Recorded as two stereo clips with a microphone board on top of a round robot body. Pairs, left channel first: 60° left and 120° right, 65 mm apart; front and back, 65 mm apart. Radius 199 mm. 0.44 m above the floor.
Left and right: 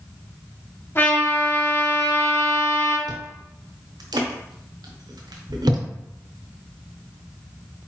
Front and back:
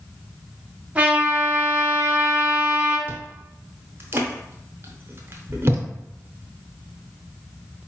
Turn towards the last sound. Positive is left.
turn(degrees=-125)